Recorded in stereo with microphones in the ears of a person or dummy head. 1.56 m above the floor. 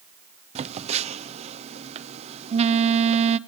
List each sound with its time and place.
0.6 s a phone buzzing: 40° right (ahead or behind), 0.6 m